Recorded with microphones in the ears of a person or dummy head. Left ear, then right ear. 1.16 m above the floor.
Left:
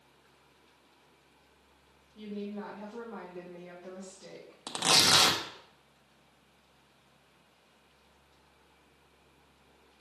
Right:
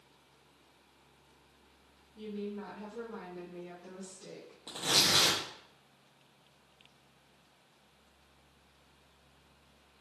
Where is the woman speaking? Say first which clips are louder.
Even; 40° left (ahead or behind), 1.5 m; by 4.6 s 15° right (ahead or behind), 1.2 m.